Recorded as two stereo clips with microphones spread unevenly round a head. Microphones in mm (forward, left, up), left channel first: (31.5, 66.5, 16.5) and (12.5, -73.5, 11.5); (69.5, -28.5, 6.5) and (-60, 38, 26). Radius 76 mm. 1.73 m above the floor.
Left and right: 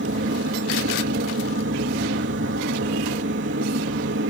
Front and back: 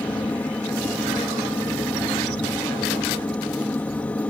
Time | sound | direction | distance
0.0 | a machine running | 110° right | ?